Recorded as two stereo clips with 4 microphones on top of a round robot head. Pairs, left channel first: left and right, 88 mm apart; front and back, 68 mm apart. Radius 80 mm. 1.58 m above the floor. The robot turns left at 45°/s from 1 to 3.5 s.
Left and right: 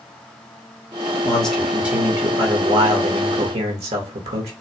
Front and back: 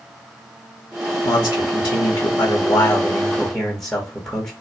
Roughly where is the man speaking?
Ahead.